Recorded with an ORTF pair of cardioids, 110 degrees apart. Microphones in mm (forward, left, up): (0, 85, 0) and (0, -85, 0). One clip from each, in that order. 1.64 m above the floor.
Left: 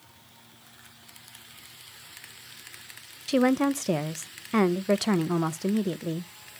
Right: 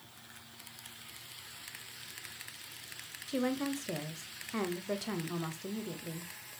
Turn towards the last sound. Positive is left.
turn(degrees=50)